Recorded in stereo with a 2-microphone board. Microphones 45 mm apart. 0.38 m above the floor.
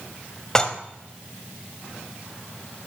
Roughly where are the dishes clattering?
Centre.